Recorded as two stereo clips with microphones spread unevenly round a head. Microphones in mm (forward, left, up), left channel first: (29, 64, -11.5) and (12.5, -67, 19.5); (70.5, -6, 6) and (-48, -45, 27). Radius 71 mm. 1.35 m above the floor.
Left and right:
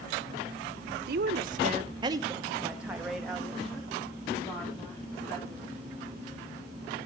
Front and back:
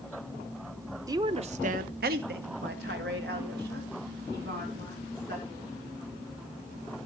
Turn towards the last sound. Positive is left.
turn(degrees=165)